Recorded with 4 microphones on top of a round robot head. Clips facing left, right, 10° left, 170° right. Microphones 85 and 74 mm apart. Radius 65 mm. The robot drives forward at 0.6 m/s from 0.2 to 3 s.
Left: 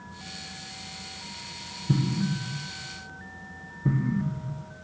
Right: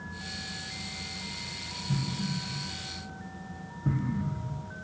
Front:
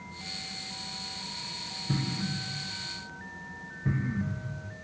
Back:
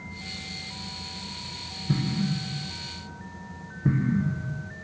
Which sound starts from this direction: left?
An explosion, at 1.9 s.